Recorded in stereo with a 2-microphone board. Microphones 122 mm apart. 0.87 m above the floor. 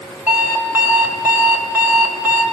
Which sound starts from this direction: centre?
An alarm clock, at 0.3 s.